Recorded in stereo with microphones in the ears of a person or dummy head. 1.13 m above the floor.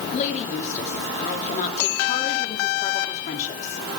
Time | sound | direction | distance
0.1 | a woman speaking | 40° left (ahead or behind) | 2.5 m